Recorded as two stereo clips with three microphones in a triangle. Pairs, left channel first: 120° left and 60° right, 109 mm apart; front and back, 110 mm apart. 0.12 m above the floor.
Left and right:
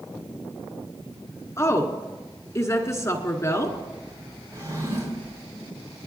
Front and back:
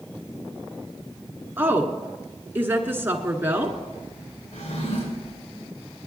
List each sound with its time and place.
1.6 s a woman speaking: 135° left, 1.1 m
4.5 s a drawer: 5° right, 4.5 m